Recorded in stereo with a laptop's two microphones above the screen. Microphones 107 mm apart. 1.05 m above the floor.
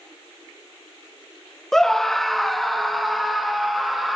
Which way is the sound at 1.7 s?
5° left (ahead or behind).